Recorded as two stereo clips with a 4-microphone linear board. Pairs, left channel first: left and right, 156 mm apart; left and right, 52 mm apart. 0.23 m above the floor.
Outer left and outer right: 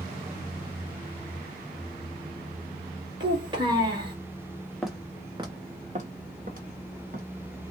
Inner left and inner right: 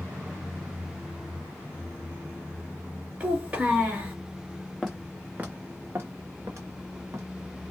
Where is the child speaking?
25° right (ahead or behind), 1.8 m.